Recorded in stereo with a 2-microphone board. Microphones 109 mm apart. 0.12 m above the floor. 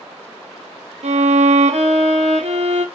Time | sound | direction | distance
1.0 | a violin | 80° right | 0.7 m